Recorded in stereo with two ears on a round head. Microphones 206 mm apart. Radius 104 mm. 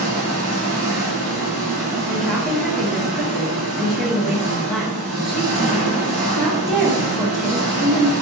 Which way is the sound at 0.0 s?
10° right (ahead or behind).